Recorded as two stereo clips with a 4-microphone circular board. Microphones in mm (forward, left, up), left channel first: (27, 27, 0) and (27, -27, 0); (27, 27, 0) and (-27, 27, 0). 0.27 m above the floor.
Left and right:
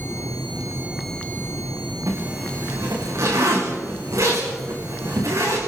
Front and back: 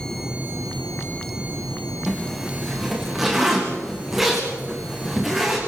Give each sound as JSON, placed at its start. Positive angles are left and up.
{"t": 2.1, "sound": "a zipper", "azimuth_deg": -95, "distance_m": 8.5}